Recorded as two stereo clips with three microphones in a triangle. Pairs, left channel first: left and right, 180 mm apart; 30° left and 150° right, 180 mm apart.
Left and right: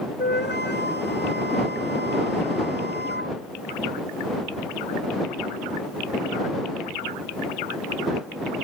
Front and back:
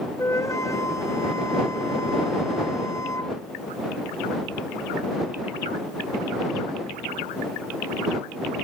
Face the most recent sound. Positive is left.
turn(degrees=105)